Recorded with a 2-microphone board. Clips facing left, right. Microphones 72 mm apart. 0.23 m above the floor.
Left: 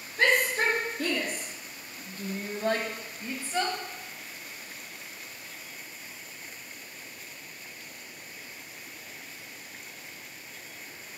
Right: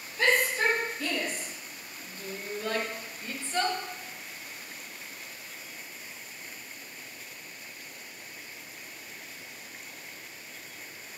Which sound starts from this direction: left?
A shout, at 0.2 s.